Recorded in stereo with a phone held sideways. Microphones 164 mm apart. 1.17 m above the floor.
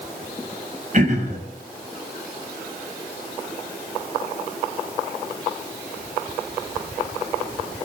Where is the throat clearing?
50° right (ahead or behind), 6 m.